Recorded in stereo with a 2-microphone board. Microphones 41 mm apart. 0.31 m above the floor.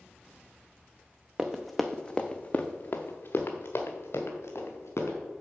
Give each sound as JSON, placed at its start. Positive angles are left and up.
{"t": 1.4, "sound": "running footsteps", "side_deg": -15, "distance_m": 1.0}